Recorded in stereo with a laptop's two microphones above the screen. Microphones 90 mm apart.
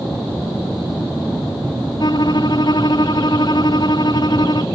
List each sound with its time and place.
2.0 s a violin: 55° left (ahead or behind)